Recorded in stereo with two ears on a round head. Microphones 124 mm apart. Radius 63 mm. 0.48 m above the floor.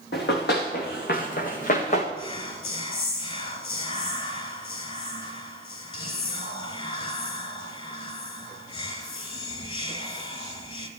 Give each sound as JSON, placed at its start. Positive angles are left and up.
{"t": 0.1, "sound": "running footsteps", "side_deg": 80, "distance_m": 4.0}
{"t": 2.2, "sound": "whispering", "side_deg": 40, "distance_m": 3.5}